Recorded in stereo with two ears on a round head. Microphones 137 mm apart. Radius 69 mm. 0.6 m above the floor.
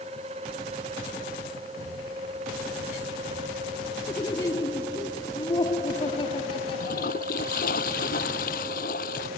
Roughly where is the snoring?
I don't hear snoring.